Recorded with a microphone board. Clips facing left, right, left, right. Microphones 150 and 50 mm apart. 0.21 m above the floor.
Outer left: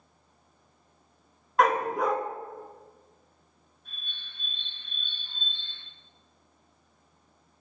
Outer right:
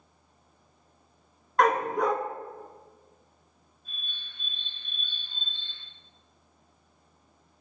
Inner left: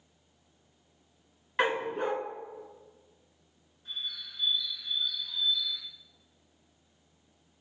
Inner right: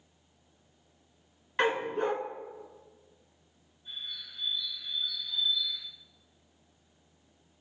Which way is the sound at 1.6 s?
5° left (ahead or behind).